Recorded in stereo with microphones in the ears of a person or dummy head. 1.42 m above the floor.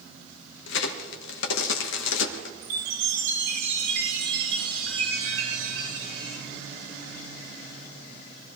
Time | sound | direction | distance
0.7 | a crack | 75° left (ahead or behind) | 1.3 m
2.6 | a chime | 70° right (ahead or behind) | 7 m